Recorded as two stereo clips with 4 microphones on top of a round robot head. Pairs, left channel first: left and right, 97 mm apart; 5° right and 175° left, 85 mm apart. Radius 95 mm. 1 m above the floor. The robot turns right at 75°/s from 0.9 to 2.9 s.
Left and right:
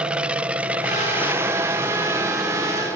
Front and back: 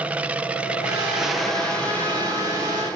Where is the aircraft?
150° right; by 3.0 s 25° left.